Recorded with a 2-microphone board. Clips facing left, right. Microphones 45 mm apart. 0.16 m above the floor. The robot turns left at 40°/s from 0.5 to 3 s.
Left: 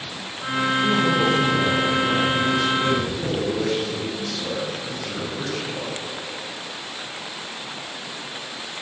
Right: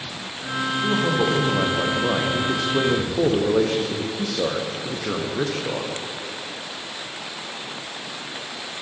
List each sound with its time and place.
0.8 s a man speaking: straight ahead, 5.5 m; by 5.9 s 90° right, 5.5 m